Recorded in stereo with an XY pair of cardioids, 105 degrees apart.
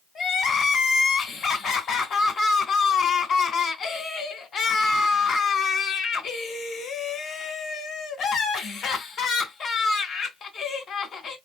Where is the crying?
60° left, 2.5 m.